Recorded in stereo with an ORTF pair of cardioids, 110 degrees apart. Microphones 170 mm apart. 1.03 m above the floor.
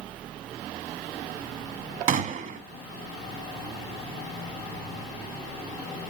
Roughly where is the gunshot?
Ahead right.